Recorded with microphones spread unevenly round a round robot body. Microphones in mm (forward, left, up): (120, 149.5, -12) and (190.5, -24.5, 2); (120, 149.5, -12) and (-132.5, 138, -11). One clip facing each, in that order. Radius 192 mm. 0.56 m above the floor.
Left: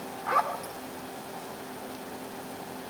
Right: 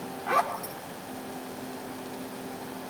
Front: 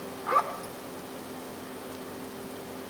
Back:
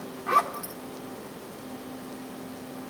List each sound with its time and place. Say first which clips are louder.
0.3 s a zipper: right 2 dB, back 1 dB; 135° right, 1.6 m